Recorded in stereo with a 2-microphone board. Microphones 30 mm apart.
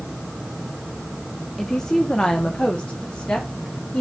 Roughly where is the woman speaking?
Centre.